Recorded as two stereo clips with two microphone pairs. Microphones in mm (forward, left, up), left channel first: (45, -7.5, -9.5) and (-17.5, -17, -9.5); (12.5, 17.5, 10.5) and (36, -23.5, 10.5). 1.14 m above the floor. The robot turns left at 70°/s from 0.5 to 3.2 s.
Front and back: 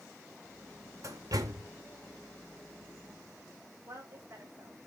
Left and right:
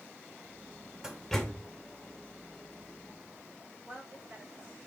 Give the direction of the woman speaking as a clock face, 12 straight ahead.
4 o'clock.